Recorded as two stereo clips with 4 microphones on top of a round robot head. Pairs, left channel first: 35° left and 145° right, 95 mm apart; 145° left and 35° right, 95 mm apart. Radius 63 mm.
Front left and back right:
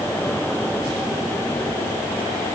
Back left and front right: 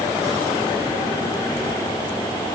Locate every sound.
Only background noise.